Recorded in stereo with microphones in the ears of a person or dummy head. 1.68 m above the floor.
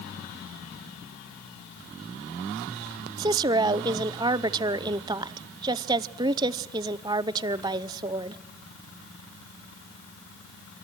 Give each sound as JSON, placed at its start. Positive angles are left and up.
{"t": 3.2, "sound": "a woman speaking", "side_deg": -20, "distance_m": 0.6}